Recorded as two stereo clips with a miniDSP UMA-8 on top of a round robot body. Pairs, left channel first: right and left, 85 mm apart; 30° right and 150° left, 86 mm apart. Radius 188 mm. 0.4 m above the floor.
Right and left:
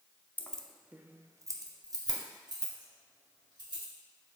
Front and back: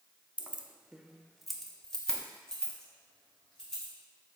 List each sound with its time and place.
0.4 s keys jangling: 145° right, 0.6 m; by 3.9 s 50° left, 2 m